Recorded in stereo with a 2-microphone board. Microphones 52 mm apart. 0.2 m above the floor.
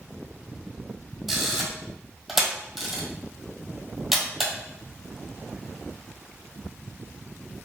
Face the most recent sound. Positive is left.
turn(degrees=-10)  # may be behind; listen again after turning